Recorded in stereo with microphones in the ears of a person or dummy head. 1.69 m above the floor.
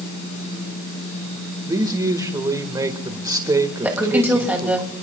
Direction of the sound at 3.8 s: 5° right (ahead or behind).